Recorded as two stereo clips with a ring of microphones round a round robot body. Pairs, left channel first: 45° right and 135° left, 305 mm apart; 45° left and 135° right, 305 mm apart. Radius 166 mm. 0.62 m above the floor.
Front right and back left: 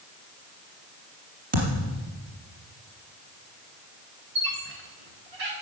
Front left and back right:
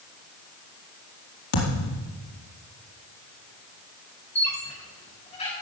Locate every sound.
1.5 s a thud: 70° left, 4.5 m
4.3 s a squeak: 115° left, 4.5 m